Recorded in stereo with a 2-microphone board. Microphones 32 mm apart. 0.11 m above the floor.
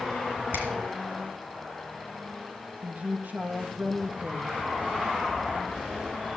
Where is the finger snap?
70° right (ahead or behind), 3.5 m.